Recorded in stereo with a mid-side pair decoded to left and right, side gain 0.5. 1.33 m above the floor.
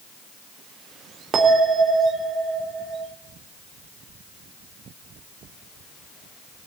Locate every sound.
1.3 s a bell: 50° right, 3 m